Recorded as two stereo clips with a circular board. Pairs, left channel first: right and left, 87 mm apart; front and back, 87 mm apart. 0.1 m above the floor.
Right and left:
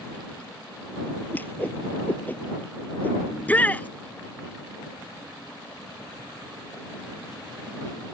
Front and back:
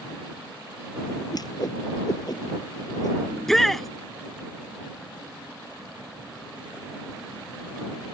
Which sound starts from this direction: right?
A shout, at 3.3 s.